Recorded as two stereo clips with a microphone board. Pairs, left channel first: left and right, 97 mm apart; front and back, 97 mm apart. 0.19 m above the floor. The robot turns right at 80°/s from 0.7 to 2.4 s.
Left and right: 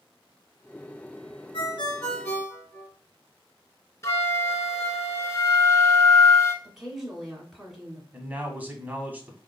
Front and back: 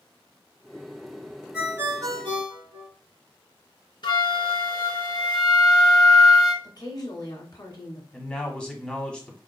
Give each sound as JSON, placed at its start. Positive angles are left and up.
{"t": 1.5, "sound": "a ringtone", "azimuth_deg": 95, "distance_m": 2.0}
{"t": 4.0, "sound": "a flute", "azimuth_deg": 30, "distance_m": 0.9}
{"t": 6.6, "sound": "a woman speaking", "azimuth_deg": -5, "distance_m": 1.7}
{"t": 8.1, "sound": "a man speaking", "azimuth_deg": -60, "distance_m": 1.0}